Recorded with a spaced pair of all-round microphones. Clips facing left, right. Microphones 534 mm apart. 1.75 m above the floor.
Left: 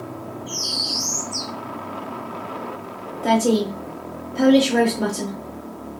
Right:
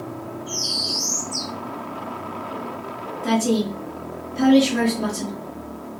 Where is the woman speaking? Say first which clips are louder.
Left 2 dB; 75° left (ahead or behind), 0.9 m.